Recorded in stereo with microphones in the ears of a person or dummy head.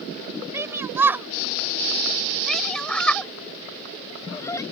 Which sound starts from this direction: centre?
A shout, at 0.5 s.